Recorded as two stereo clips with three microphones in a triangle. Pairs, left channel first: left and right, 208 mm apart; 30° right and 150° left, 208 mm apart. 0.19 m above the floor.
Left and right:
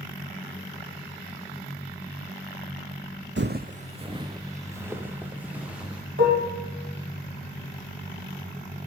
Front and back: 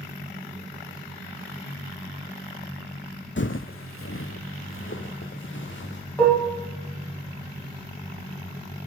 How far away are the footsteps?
About 0.6 m.